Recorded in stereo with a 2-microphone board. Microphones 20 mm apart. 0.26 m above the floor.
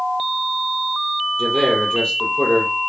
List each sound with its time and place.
1.4 s a man speaking: 40° left (ahead or behind), 5.5 m